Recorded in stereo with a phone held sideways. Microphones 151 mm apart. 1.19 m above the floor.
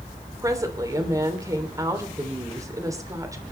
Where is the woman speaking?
20° right (ahead or behind), 3 m.